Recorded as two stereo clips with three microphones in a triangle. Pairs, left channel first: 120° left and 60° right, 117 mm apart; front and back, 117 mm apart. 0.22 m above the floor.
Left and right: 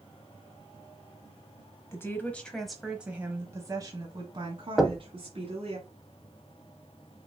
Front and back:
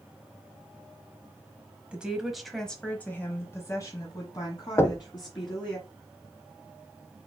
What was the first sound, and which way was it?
A woman speaking, 115° left.